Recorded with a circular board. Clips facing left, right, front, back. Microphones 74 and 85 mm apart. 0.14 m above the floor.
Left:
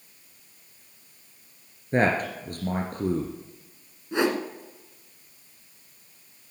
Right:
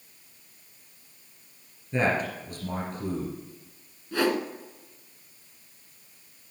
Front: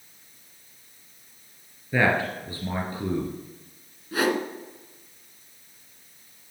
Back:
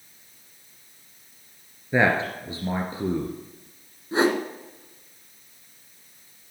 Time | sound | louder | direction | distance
1.9 | a man speaking | left 3 dB, back 1 dB | 115° left | 2 m
4.1 | a whoosh | left 1 dB, back 3 dB | 140° left | 1.5 m